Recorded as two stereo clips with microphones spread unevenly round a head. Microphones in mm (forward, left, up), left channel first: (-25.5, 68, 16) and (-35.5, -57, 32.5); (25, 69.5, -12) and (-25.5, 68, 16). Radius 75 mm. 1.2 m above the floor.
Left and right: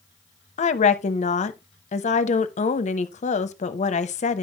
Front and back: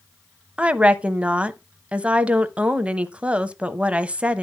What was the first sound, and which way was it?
A woman speaking, 120° left.